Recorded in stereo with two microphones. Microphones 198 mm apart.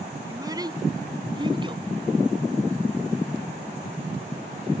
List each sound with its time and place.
0.3 s a child speaking: 20° right (ahead or behind); by 1.8 s 25° right (ahead or behind)